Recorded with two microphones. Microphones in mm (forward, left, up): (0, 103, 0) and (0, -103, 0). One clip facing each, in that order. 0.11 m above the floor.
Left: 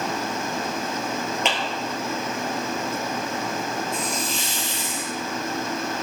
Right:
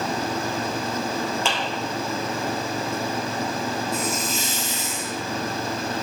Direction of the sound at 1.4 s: 20° left (ahead or behind).